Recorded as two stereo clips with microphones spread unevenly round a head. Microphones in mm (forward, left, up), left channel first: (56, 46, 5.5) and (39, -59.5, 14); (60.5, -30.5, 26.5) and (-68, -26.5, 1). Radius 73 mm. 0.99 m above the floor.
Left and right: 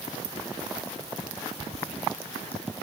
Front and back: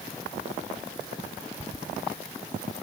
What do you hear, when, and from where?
Only background noise.